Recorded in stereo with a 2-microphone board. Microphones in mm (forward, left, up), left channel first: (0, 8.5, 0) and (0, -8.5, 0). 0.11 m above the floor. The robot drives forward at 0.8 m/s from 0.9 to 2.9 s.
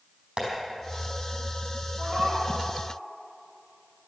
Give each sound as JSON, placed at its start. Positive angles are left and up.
{"t": 0.4, "sound": "tapping", "side_deg": -60, "distance_m": 4.5}
{"t": 2.0, "sound": "a cat meowing", "side_deg": -75, "distance_m": 5.0}